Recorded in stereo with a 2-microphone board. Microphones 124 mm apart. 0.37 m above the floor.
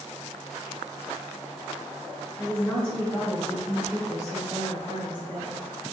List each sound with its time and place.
2.4 s a woman speaking: 20° left (ahead or behind), 1.3 m; by 5.6 s 15° right (ahead or behind), 1.7 m